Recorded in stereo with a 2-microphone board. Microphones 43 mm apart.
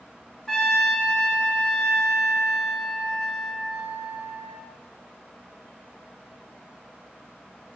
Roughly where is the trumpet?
Centre.